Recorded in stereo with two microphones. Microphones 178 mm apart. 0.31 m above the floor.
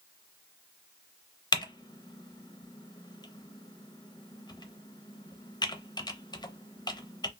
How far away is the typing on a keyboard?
About 0.5 m.